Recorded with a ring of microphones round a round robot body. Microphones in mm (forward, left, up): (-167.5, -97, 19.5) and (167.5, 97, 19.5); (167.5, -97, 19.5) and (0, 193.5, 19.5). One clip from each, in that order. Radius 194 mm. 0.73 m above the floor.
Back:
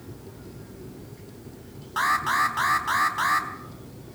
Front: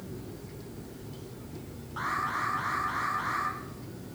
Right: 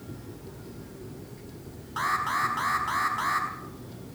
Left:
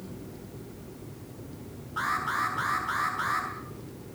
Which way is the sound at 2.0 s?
125° right.